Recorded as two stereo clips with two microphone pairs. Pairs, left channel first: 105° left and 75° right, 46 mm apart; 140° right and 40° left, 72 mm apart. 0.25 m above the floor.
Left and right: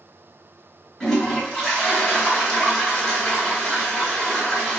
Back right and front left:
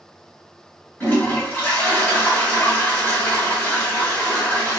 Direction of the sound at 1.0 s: 170° right.